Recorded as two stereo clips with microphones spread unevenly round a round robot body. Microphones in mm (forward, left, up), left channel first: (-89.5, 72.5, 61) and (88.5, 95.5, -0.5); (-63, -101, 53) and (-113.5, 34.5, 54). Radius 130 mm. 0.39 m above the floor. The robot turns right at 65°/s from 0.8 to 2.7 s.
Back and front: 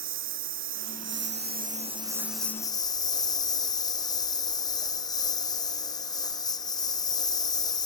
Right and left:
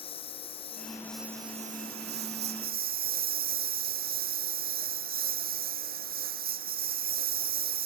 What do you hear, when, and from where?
0.0 s a lawn mower: 5° right; by 7.9 s 120° left